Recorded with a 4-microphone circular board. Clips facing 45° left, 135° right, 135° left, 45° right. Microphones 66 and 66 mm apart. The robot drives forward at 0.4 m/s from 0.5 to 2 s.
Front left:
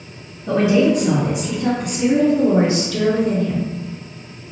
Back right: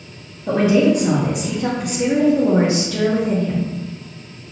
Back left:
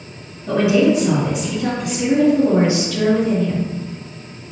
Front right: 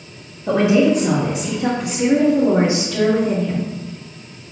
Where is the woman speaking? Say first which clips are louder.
Even, even; 85° right, 1.1 m; by 3.7 s 115° right, 1.2 m.